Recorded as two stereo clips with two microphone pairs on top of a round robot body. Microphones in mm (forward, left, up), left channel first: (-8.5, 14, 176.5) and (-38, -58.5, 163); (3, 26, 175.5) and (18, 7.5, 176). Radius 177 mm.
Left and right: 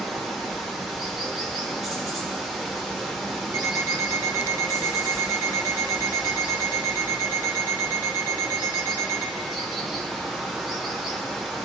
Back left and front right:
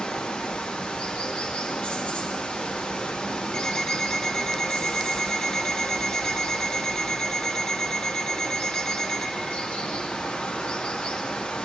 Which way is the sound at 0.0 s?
160° left.